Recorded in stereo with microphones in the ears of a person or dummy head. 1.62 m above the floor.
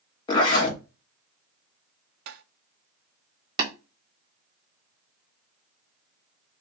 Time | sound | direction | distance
0.3 | a zipper | 30° left (ahead or behind) | 1.5 m
2.3 | tapping | 55° right (ahead or behind) | 0.5 m
3.6 | tapping | 45° right (ahead or behind) | 1.5 m